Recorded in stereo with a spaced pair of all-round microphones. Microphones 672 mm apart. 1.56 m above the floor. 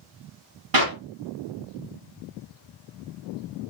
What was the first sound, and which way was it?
A clap, 35° right (ahead or behind).